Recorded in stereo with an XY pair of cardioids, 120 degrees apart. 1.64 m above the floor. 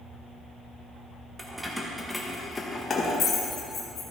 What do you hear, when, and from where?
1.4 s keys jangling: 15° right, 1.5 m; by 4.0 s 55° left, 2 m